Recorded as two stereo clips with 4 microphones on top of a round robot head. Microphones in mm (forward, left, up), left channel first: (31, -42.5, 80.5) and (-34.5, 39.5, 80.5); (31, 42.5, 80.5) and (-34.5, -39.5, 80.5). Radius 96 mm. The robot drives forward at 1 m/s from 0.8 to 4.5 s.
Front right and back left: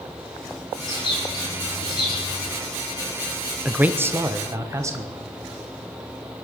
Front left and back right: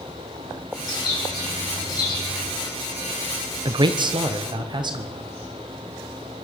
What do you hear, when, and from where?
0.8 s a bird: straight ahead, 5 m
3.6 s a man speaking: 155° right, 0.7 m; by 5.3 s 170° right, 1.4 m